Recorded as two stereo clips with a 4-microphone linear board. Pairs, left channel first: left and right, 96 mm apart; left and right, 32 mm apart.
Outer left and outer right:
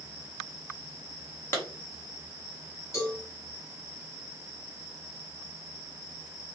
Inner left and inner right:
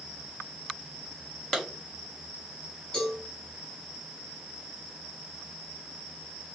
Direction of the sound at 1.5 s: 25° left (ahead or behind).